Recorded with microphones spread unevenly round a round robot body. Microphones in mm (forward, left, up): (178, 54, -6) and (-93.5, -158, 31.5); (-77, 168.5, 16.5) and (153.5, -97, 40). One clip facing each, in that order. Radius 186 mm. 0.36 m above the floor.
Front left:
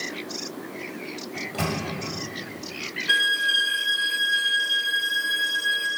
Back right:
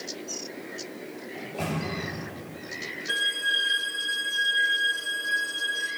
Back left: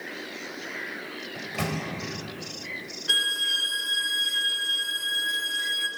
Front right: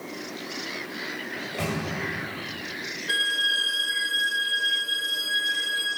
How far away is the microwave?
About 1.6 m.